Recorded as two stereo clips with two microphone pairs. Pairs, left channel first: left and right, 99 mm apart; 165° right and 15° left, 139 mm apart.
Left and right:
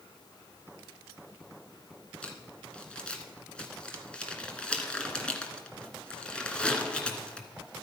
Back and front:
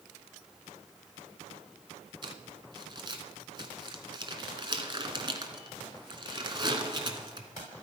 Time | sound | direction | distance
2.2 | crumpling | 25° left | 1.8 m